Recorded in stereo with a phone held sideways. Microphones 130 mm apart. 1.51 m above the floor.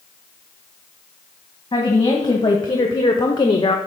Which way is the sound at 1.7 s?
35° left (ahead or behind).